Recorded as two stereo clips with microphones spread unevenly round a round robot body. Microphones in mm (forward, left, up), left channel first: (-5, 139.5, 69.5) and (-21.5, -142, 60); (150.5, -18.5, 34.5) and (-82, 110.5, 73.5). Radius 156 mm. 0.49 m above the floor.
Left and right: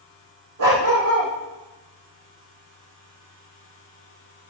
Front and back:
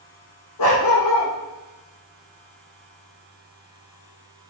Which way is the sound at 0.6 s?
50° right.